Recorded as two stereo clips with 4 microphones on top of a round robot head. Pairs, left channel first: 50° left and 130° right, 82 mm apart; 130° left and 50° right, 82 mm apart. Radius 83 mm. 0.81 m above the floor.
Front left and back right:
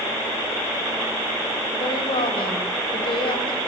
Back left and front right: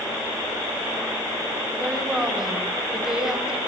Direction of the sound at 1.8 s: 35° left.